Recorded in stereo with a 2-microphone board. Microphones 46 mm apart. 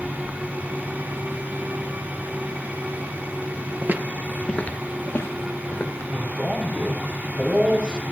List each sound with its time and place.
3.8 s footsteps: 50° right (ahead or behind), 0.8 m; by 6.1 s 75° left (ahead or behind), 2 m
6.1 s a man speaking: 20° right (ahead or behind), 4.5 m